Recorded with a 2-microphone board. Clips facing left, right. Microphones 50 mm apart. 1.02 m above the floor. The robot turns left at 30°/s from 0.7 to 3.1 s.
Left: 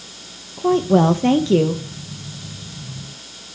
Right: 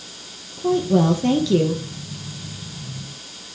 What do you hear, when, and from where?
0.6 s a woman speaking: 65° left, 0.8 m; by 1.8 s 30° left, 0.8 m